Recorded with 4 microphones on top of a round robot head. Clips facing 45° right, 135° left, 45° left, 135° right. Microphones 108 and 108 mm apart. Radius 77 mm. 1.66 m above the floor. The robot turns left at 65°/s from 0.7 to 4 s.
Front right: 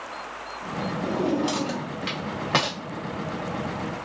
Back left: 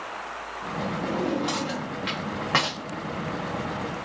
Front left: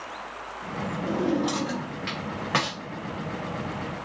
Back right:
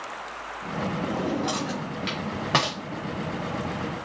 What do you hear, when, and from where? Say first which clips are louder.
1.1 s a drawer: front right 3 dB, front left 5 dB; 5° left, 0.8 m; by 2.8 s 110° right, 0.8 m